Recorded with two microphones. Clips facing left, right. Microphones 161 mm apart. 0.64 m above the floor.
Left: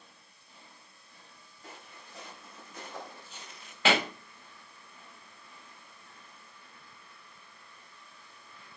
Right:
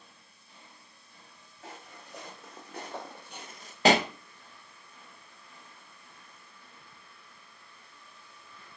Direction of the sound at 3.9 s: 40° right (ahead or behind).